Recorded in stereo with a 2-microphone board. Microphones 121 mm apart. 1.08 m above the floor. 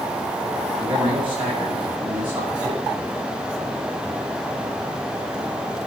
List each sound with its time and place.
0.7 s a man speaking: 55° right (ahead or behind), 7 m; by 2.8 s 40° right (ahead or behind), 6.5 m